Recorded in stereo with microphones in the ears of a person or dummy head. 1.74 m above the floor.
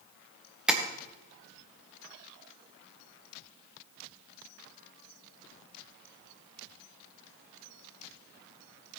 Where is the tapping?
5° right (ahead or behind), 1.4 m.